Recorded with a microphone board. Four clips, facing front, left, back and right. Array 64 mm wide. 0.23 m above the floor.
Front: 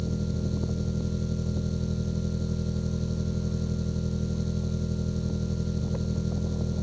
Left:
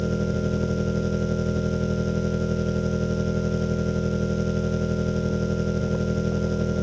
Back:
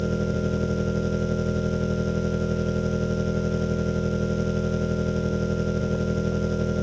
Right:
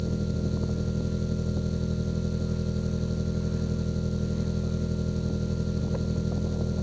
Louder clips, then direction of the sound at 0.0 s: Left 5 dB, back 6 dB; 140° left.